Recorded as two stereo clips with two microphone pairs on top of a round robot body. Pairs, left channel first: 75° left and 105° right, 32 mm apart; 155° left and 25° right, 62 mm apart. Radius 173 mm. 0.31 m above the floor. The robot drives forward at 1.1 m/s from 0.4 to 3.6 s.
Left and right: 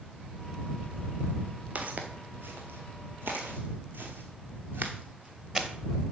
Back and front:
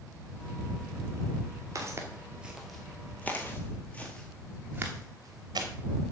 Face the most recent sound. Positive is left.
turn(degrees=-35)